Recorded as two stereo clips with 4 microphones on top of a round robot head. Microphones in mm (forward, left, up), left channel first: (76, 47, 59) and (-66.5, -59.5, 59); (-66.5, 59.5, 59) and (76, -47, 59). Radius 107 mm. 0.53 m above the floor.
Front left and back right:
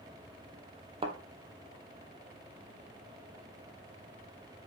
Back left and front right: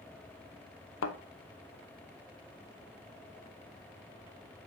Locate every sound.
1.0 s a thud: 155° left, 1.3 m